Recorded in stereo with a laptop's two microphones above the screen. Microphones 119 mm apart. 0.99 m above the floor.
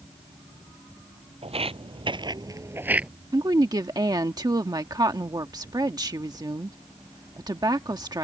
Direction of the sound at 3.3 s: 35° right (ahead or behind).